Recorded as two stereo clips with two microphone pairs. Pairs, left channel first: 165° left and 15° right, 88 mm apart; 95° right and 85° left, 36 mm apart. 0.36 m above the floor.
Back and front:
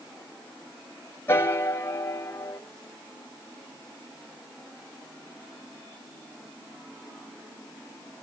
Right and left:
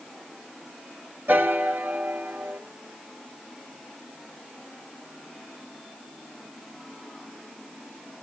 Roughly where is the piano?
Left.